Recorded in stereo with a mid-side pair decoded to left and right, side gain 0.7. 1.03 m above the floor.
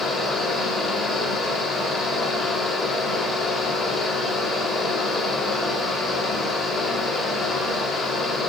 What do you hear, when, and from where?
0.0 s a fan: 20° left, 2 m